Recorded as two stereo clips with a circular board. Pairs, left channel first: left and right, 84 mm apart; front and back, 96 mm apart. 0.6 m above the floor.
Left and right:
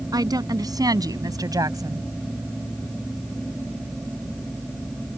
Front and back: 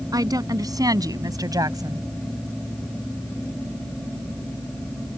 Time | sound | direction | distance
0.1 | a woman speaking | 130° right | ?